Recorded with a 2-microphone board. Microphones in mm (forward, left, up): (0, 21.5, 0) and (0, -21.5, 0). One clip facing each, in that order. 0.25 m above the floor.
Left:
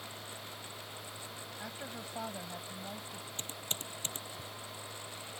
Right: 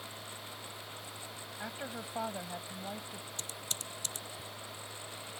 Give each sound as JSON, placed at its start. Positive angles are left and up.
{"t": 1.6, "sound": "a woman speaking", "side_deg": -20}
{"t": 3.4, "sound": "typing on a keyboard", "side_deg": 35}